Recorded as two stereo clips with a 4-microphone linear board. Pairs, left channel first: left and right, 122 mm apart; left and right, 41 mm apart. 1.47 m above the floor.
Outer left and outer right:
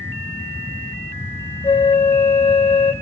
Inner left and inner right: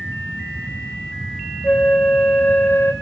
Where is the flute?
50° left (ahead or behind), 1.2 m.